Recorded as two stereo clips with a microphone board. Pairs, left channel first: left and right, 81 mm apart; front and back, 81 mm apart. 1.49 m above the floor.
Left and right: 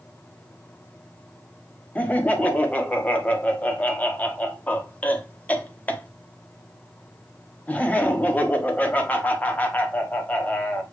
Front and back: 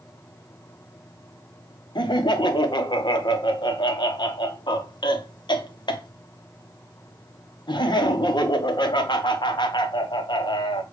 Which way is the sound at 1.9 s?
20° left.